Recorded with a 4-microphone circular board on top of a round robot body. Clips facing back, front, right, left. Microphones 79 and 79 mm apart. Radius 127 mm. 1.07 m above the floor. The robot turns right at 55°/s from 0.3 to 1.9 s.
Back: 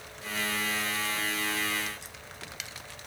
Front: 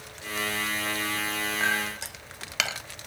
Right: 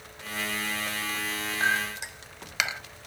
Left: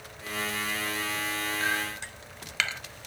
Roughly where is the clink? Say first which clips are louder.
Front 6 dB, right 7 dB; ahead right.